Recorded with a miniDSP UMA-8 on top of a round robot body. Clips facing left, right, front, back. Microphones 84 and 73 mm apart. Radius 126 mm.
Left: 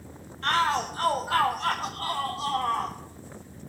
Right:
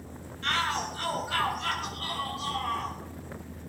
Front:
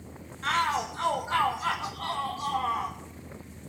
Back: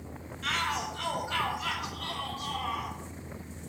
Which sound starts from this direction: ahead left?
A shout, at 0.4 s.